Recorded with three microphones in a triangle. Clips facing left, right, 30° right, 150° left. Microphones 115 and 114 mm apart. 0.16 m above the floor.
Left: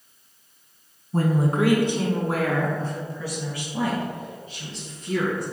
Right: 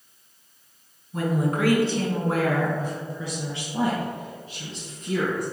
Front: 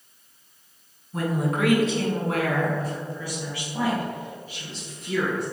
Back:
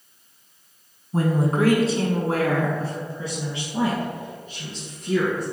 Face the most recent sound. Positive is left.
turn(degrees=-135)